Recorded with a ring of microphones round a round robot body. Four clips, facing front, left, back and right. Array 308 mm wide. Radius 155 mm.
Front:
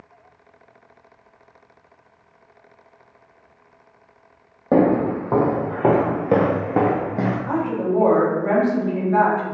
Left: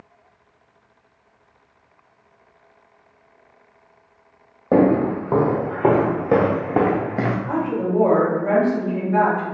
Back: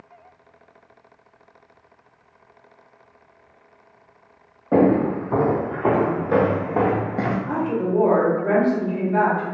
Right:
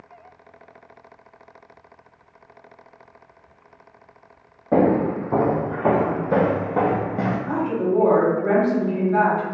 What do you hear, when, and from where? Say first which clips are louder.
4.7 s footsteps: left 2 dB, even; 40° left, 1.5 m; by 7.4 s 130° left, 0.5 m
7.5 s a woman speaking: even, front 1 dB; 5° right, 1.9 m